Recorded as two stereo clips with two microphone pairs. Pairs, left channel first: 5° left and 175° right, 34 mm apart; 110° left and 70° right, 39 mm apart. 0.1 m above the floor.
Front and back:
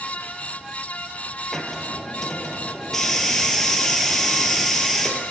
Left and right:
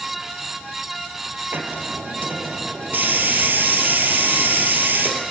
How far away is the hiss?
About 2.5 m.